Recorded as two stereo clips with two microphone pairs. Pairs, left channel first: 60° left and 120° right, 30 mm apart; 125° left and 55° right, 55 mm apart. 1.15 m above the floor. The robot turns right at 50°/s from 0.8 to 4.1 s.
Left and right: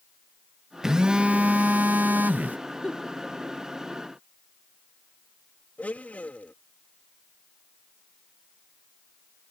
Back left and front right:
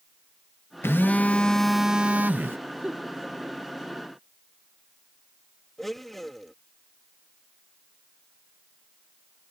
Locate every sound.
0.8 s a phone buzzing: 170° left; by 2.6 s 105° right
2.8 s a giggle: 15° left; by 3.1 s 30° left
5.8 s a blender: 40° left